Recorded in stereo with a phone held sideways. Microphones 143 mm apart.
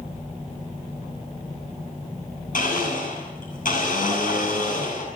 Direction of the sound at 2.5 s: 70° left (ahead or behind).